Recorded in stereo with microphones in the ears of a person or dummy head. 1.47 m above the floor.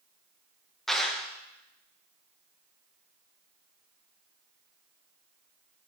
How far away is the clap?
About 0.6 m.